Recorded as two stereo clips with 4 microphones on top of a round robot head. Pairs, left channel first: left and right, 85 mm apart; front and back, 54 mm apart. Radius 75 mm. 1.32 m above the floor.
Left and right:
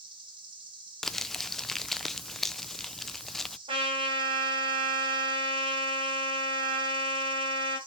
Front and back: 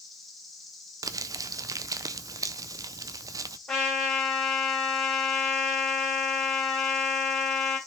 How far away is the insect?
About 2.0 m.